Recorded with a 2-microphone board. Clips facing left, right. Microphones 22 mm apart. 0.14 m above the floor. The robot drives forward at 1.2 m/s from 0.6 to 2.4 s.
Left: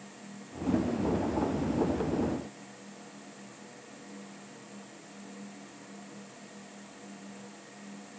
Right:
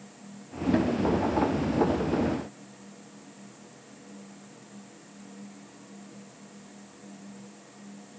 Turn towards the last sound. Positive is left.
No sound to turn to.